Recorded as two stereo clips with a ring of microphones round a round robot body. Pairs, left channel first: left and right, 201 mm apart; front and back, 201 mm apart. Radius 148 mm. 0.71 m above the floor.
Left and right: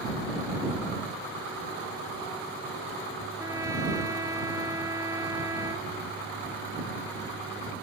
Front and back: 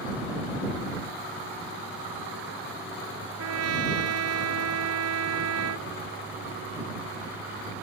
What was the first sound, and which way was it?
A trumpet, 170° right.